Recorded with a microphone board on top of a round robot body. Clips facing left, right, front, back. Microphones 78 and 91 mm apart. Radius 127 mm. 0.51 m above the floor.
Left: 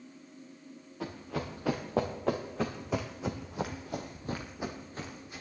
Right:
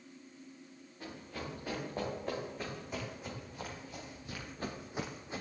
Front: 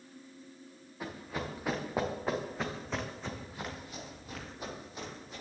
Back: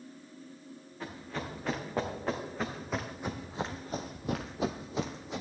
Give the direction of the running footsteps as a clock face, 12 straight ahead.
9 o'clock.